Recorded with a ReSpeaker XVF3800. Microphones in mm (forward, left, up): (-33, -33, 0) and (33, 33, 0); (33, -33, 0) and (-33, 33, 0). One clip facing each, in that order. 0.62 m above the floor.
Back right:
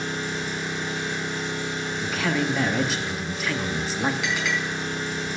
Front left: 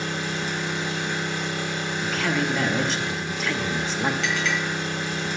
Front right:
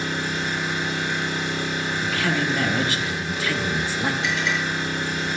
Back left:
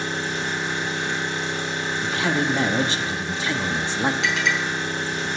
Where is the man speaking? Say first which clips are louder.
Even, back left 2 dB; 140° left, 0.7 m.